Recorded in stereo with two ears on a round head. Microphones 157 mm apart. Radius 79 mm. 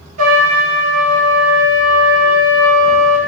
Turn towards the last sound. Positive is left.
turn(degrees=-40)  # may be behind; listen again after turning